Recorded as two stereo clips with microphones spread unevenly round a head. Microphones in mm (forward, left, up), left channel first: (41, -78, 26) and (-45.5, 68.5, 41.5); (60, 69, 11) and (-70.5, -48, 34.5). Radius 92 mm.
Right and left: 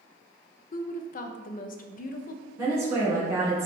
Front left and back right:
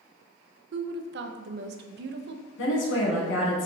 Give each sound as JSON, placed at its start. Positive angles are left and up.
{"t": 0.7, "sound": "a woman speaking", "azimuth_deg": -105, "distance_m": 0.5}
{"t": 2.6, "sound": "a woman speaking", "azimuth_deg": 45, "distance_m": 1.6}